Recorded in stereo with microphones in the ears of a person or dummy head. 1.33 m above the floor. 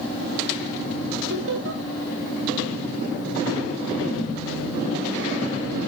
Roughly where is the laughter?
Right.